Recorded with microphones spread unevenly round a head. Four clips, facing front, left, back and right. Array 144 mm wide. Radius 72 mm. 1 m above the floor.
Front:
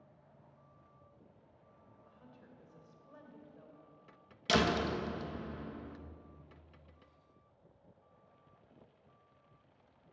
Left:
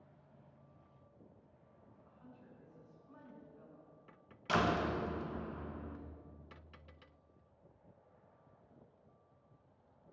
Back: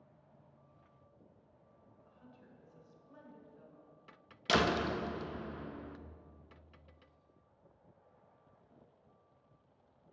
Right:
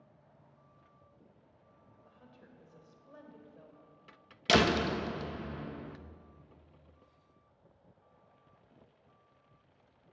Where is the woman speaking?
85° right, 4 m.